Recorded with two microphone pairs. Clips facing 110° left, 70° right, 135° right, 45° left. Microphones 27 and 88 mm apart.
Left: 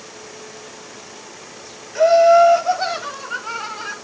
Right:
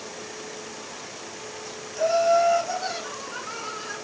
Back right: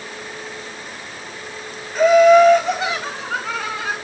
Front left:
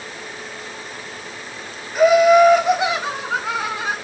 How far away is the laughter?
About 2 m.